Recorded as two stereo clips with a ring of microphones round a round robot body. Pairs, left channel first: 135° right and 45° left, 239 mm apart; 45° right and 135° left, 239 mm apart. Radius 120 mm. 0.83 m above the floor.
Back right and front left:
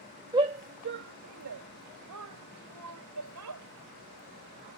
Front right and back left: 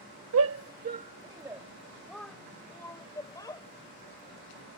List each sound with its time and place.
0.3 s a shout: 115° left; by 3.6 s 30° left